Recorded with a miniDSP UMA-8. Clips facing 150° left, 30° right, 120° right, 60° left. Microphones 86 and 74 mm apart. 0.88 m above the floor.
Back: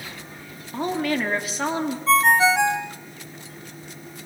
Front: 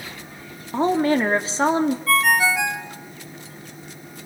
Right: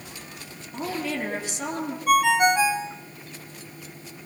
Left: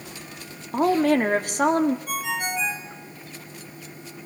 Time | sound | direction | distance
0.7 | a woman speaking | 30° left | 2.5 m
2.1 | a ringtone | 145° right | 1.5 m